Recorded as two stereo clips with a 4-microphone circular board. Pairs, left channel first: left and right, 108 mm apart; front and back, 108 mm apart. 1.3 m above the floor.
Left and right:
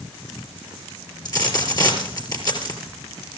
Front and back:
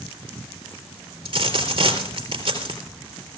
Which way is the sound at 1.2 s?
140° left.